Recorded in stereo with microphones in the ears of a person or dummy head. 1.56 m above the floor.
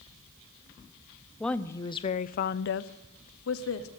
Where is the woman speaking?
10° left (ahead or behind), 0.7 m; by 3.9 s 75° left (ahead or behind), 1.0 m.